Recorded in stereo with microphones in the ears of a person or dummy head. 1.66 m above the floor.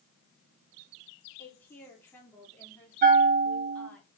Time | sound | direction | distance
1.4 | a woman speaking | 15° left (ahead or behind) | 4.5 m
3.0 | a bell | 30° right (ahead or behind) | 0.9 m